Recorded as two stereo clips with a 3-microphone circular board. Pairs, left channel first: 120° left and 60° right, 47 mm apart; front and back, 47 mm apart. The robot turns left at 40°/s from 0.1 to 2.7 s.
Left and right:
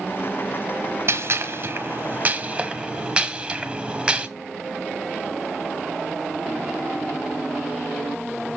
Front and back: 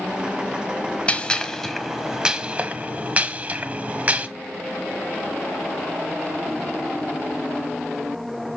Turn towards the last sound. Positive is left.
turn(degrees=-130)